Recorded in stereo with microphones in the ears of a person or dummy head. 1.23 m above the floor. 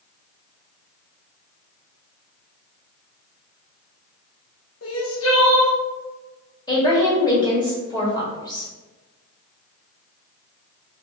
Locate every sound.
4.8 s crying: 75° left (ahead or behind), 1.1 m
6.7 s a woman speaking: 20° left (ahead or behind), 1.6 m